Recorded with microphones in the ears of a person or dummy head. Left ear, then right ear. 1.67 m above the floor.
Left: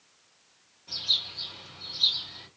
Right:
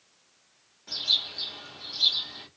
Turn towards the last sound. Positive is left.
turn(degrees=-25)  # may be behind; listen again after turning